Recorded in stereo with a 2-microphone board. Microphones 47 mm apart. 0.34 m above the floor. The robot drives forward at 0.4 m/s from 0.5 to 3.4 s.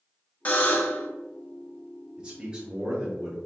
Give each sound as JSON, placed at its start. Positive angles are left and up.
{"t": 0.5, "sound": "a buzzer", "side_deg": 40, "distance_m": 0.9}
{"t": 2.2, "sound": "a man speaking", "side_deg": -20, "distance_m": 0.9}